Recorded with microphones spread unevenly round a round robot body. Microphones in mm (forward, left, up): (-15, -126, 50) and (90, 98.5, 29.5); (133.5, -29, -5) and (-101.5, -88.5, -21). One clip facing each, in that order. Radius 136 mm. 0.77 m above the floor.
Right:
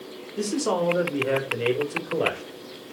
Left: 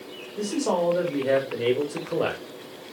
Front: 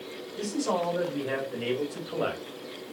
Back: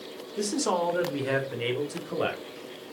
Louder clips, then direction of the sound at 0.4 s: Even, back 2 dB; straight behind.